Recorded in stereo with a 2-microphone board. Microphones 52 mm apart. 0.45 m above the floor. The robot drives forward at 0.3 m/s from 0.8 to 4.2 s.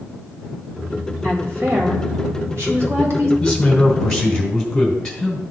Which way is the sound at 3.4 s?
10° left (ahead or behind).